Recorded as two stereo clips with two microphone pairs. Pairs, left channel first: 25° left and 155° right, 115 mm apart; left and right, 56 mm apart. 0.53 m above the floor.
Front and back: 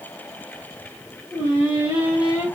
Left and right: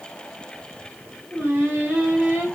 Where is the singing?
115° right, 1.4 m.